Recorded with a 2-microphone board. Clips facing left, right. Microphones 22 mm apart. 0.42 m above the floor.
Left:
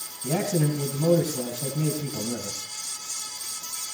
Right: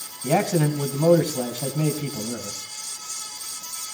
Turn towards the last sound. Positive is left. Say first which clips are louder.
# right 4 dB
turn(degrees=-55)  # may be behind; listen again after turning